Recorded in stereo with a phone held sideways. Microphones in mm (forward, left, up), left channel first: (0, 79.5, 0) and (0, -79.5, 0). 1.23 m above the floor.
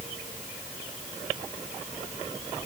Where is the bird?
No bird in this recording.